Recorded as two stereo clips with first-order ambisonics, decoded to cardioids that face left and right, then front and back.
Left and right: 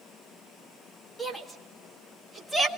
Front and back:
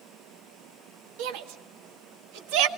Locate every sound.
1.2 s a shout: 175° left, 1.7 m